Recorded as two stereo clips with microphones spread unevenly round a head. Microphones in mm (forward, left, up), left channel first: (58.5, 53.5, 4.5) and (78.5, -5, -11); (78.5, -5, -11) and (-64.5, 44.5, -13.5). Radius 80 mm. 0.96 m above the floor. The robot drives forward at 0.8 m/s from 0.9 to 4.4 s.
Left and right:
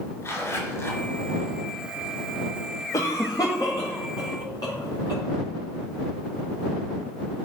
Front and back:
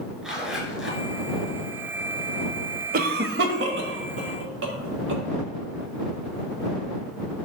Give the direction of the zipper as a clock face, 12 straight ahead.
10 o'clock.